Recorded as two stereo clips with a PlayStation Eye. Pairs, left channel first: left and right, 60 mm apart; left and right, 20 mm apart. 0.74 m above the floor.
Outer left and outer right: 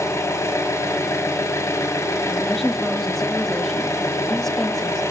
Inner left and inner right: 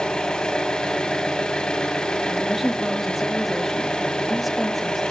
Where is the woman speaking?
5° left (ahead or behind), 0.6 m.